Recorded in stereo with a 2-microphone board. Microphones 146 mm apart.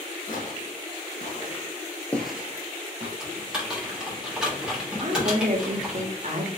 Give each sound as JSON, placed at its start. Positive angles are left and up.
{"t": 0.3, "sound": "footsteps", "side_deg": 65, "distance_m": 1.7}
{"t": 3.2, "sound": "typing on a keyboard", "side_deg": -5, "distance_m": 1.4}
{"t": 5.0, "sound": "a woman speaking", "side_deg": -55, "distance_m": 0.8}